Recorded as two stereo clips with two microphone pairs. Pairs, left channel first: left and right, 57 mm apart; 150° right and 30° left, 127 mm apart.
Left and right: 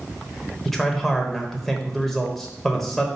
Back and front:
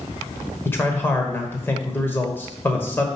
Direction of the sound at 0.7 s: 170° left.